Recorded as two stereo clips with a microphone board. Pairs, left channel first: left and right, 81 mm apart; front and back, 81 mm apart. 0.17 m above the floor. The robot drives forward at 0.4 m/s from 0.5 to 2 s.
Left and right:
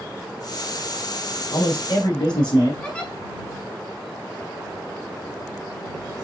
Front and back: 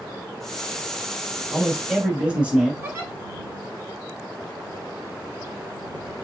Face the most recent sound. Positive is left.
turn(degrees=150)